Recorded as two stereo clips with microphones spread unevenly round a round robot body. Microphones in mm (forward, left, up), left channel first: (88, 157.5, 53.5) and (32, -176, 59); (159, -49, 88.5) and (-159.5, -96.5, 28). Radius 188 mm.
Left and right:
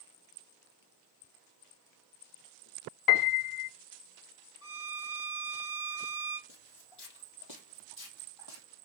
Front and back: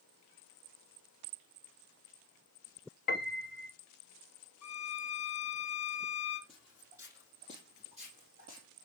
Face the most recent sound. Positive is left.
turn(degrees=120)